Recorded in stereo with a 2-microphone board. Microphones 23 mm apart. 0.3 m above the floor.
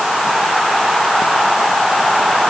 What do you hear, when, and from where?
Only background noise.